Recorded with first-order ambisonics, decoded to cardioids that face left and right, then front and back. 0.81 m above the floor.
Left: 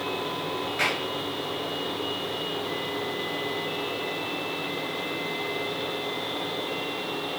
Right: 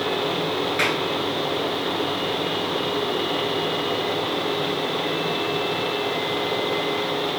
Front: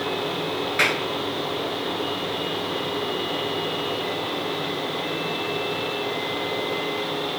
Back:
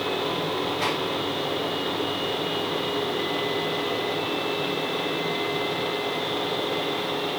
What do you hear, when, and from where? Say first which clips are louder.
0.8 s a clap: right 2 dB, front 9 dB; 25° right, 5.5 m